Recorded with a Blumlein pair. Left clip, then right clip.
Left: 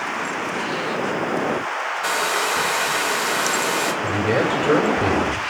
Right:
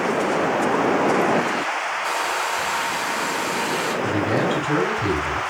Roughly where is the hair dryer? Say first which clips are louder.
Left 5 dB; ahead left.